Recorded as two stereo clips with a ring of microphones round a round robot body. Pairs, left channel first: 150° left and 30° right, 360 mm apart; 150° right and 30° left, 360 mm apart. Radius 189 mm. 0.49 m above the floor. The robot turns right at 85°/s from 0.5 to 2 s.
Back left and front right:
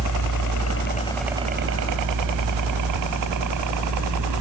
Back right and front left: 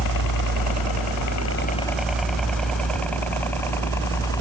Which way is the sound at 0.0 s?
175° right.